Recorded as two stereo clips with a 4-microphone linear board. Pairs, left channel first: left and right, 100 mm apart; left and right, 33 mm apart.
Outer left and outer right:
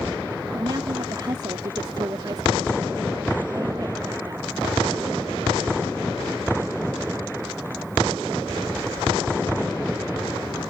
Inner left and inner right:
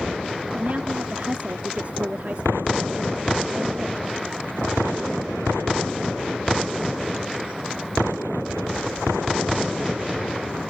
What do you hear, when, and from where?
0.5 s a woman speaking: 45° right (ahead or behind)